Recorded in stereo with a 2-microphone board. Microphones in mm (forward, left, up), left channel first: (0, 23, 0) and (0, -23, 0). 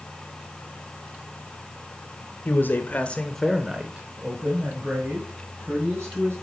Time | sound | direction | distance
2.5 | a man speaking | 55° left (ahead or behind) | 1.9 m